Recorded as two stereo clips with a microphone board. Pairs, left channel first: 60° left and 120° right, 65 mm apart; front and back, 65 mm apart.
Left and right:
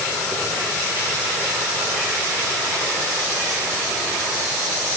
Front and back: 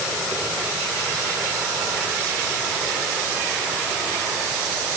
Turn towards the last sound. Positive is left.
No sound to turn to.